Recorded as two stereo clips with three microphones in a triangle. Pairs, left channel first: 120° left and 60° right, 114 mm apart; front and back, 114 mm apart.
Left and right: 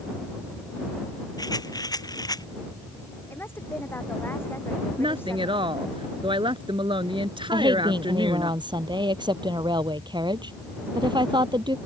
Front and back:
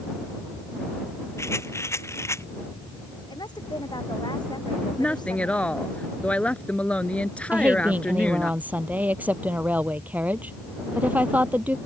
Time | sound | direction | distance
1.4 | a rattle | 65° left | ?
3.3 | a woman speaking | 50° left | ?
5.0 | a woman speaking | 75° right | ?
7.5 | a woman speaking | 105° right | ?